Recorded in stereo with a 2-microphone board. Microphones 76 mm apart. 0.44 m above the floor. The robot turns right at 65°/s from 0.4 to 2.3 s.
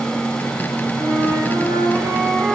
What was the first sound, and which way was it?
A flute, 100° right.